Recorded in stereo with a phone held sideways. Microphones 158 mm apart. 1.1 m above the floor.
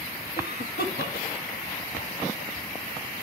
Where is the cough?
80° left, 1.3 m.